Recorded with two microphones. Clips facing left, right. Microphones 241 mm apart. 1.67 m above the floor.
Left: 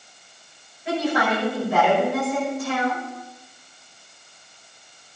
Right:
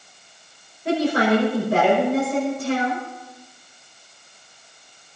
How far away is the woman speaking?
About 6 m.